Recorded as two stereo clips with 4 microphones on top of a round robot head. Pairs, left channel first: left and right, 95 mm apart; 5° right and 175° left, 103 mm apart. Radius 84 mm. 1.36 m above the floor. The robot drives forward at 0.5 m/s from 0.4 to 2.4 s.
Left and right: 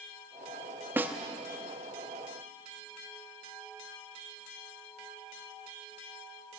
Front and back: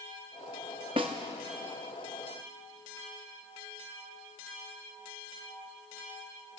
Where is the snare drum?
150° right, 0.9 m; by 1.1 s 155° right, 0.9 m.